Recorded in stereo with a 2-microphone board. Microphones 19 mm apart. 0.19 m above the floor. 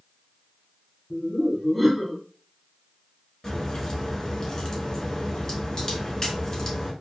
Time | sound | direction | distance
1.1 | laughter | centre (ahead or behind) | 1.2 m
3.4 | a crack | 25° left (ahead or behind) | 1.0 m